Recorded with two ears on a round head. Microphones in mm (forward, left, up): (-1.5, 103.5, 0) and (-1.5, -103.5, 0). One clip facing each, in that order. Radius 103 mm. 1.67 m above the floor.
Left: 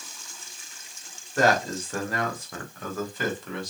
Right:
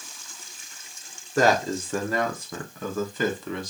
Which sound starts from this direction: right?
A man speaking, at 1.4 s.